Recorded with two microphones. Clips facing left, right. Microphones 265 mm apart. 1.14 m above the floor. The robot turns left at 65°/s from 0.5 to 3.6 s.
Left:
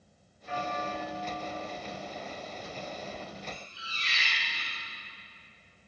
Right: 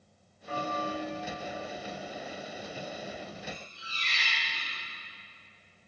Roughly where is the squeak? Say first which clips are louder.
Right 1 dB; centre.